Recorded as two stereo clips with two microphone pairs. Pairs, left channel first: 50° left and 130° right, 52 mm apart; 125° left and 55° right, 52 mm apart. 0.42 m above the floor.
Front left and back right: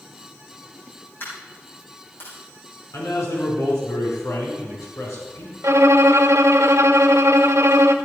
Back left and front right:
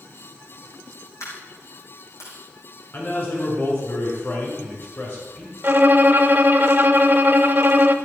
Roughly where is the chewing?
No chewing in this recording.